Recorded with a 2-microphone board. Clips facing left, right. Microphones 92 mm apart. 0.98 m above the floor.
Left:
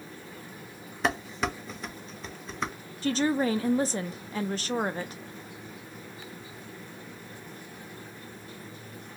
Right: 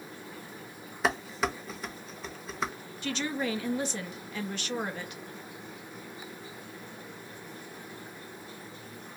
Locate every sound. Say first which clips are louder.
1.0 s dishes clattering: even; centre (ahead or behind), 0.6 m
3.0 s a woman speaking: left 7 dB; 35° left (ahead or behind), 0.5 m